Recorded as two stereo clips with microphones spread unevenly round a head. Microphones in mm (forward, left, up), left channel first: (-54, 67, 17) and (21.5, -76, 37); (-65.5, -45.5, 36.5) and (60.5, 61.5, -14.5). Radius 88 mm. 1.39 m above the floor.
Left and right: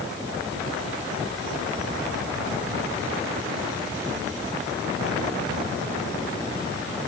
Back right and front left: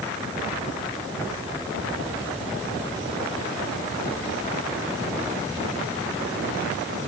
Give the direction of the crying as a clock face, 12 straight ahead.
I don't hear crying.